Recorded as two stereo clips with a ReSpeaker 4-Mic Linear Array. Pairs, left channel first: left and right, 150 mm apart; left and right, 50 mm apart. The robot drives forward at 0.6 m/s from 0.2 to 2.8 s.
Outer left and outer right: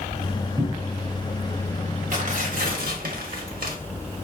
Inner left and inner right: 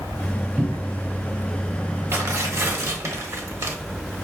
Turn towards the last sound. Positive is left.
turn(degrees=-70)  # may be behind; listen again after turning